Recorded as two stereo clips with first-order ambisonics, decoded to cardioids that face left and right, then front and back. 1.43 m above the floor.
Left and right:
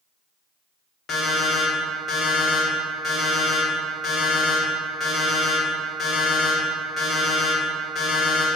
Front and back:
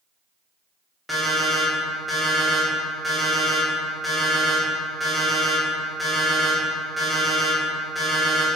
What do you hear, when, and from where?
1.1 s an alarm clock: 90° left, 0.6 m